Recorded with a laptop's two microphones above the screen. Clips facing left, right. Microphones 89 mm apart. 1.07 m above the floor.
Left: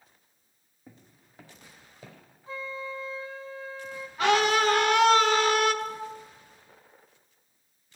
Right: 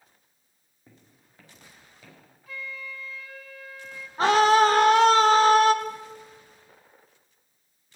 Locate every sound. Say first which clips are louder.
0.9 s footsteps: left 3 dB; 10° left (ahead or behind), 2.5 m; by 2.2 s 30° left (ahead or behind), 3 m
2.5 s a flute: left 3 dB; 30° left (ahead or behind), 0.6 m
4.2 s a scream: right 5 dB; 35° right (ahead or behind), 1.4 m